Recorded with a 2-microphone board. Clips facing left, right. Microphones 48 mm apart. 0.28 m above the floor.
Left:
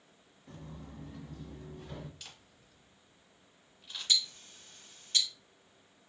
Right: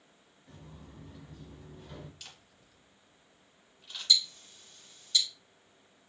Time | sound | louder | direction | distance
0.5 | footsteps | left 4 dB | 70° left (ahead or behind) | 0.7 m
2.2 | a camera shutter | even | 5° left (ahead or behind) | 1.1 m
4.1 | ticking | right 3 dB | 45° left (ahead or behind) | 0.7 m